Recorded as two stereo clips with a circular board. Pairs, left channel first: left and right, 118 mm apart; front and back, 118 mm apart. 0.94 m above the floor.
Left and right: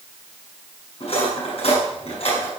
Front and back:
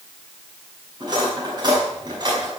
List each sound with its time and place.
1.0 s cutlery clinking: 125° left, 6 m